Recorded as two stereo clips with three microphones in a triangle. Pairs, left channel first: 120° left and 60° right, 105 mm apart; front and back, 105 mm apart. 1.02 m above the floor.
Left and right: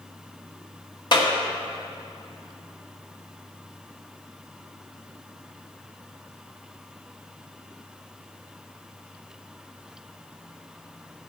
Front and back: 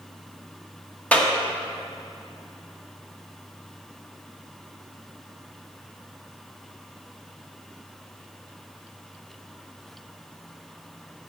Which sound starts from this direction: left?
A clap, at 1.1 s.